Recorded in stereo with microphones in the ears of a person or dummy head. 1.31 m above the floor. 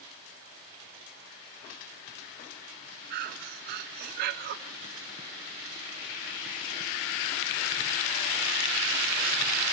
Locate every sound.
3.1 s breathing: 50° right (ahead or behind), 1.1 m